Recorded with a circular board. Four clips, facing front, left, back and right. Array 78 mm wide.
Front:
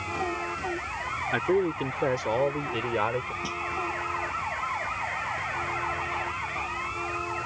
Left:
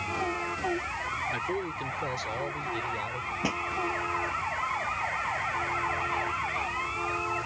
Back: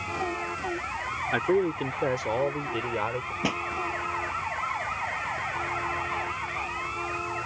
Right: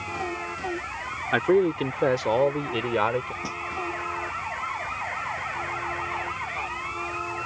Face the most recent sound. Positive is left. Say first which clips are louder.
# left 3 dB, back 4 dB
turn(degrees=155)